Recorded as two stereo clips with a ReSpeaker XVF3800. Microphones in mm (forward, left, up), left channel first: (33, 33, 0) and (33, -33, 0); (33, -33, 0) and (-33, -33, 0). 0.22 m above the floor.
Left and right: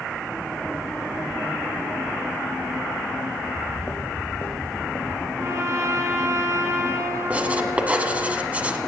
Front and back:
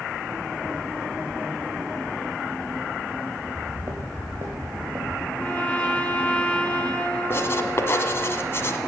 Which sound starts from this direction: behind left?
Footsteps, at 3.4 s.